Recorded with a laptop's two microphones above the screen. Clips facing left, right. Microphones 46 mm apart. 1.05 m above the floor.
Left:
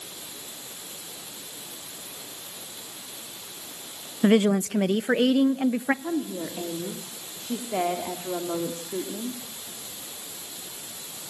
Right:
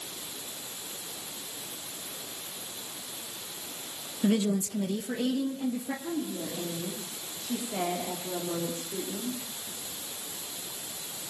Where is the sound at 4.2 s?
45° left (ahead or behind), 0.6 m; by 5.9 s 75° left (ahead or behind), 1.4 m.